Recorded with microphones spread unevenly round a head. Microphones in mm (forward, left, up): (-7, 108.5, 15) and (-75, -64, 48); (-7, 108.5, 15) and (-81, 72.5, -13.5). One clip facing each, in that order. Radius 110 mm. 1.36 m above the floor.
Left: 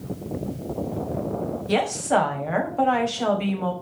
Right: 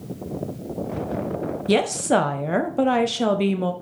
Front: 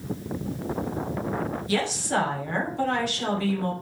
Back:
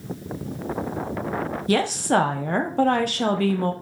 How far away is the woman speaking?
About 1.1 m.